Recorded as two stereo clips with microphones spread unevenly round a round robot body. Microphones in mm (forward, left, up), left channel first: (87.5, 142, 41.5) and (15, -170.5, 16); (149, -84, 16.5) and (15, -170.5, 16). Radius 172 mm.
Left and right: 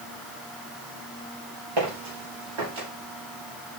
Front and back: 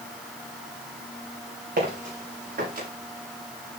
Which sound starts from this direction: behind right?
Footsteps, at 1.8 s.